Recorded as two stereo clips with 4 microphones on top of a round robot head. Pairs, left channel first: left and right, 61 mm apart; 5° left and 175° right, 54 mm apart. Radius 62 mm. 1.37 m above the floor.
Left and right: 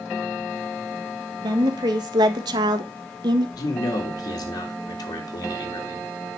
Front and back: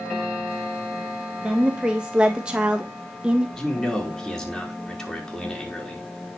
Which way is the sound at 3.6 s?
80° left.